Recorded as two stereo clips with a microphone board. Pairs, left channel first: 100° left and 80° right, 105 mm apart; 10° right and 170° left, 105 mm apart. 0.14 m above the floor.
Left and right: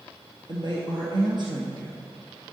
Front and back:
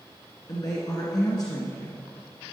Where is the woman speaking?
55° right, 1.9 m.